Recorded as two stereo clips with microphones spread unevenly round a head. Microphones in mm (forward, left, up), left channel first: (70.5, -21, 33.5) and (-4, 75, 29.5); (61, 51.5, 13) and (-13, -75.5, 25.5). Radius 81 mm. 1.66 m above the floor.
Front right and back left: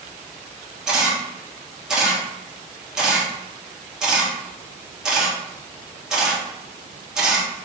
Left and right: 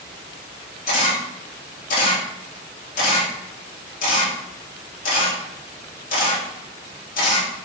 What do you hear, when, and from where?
0.9 s a camera shutter: 45° left, 1.4 m